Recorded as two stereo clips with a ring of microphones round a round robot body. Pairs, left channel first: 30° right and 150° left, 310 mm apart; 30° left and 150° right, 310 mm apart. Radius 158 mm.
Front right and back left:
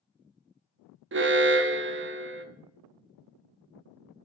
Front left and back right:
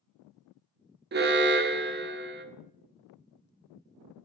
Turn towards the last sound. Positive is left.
turn(degrees=175)